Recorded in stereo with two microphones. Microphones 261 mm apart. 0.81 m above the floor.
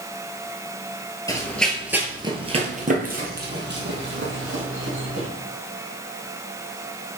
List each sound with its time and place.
1.3 s running footsteps: 15° left (ahead or behind), 0.9 m; by 5.3 s 60° right (ahead or behind), 2 m